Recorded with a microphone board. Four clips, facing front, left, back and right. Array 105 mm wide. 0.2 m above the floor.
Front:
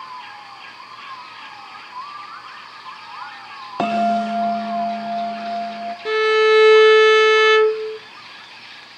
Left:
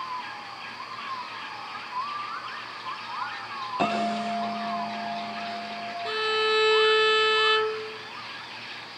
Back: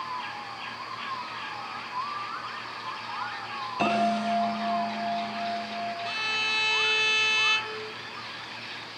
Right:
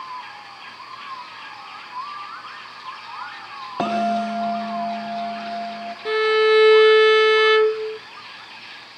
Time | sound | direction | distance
3.8 | a bell | 35° right | 7 m
6.0 | a violin | 35° right | 0.6 m